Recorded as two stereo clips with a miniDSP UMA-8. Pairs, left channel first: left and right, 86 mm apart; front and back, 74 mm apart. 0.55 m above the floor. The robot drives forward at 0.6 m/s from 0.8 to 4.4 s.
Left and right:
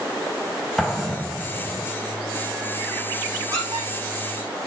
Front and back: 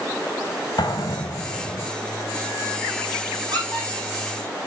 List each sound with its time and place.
0.8 s an explosion: 5° left, 2.5 m
3.5 s a squeak: 150° right, 5 m